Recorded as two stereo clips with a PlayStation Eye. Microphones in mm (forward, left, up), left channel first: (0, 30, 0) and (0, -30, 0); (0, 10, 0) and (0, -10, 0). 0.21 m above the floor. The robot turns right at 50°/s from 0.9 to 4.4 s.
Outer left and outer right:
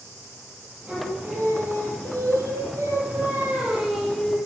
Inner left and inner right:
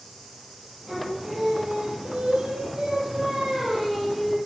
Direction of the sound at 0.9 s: 155° right.